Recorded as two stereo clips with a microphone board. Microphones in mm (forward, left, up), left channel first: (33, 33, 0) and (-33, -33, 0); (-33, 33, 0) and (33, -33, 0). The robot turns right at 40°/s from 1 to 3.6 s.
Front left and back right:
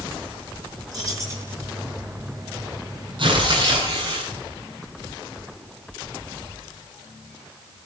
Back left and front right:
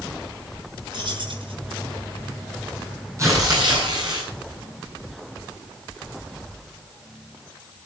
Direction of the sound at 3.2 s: 105° right.